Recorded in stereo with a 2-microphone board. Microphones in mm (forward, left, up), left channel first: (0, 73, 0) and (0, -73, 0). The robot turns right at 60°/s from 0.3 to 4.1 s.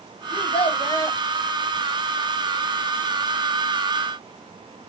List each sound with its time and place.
0.3 s a child speaking: 100° left, 1.0 m; by 1.2 s 155° left, 1.0 m